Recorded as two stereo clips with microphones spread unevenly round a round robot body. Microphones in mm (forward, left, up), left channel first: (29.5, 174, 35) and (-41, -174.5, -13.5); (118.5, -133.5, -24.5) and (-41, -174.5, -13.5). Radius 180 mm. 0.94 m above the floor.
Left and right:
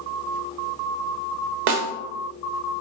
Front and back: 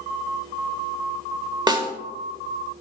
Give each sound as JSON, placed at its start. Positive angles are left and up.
{"t": 1.7, "sound": "a snare drum", "azimuth_deg": -100, "distance_m": 1.5}